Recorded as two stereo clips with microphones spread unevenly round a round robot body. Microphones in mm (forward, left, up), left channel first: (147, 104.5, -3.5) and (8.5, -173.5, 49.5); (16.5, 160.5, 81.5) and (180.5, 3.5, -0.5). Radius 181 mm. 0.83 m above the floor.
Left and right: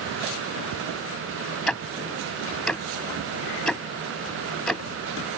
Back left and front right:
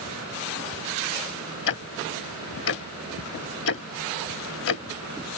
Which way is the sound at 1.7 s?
160° left.